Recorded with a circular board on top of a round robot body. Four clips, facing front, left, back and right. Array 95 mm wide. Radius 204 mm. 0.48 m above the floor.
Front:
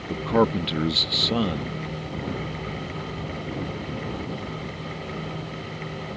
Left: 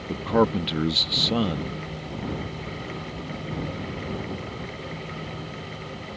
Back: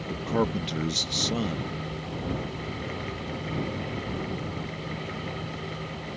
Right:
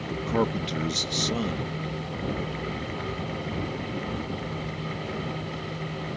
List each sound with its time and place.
0.1 s a man speaking: 45° left